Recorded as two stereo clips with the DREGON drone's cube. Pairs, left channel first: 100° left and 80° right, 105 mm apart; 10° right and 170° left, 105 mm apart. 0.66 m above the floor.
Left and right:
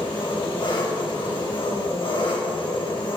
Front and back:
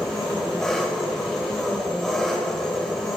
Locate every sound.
0.0 s an engine running: 75° left, 2.5 m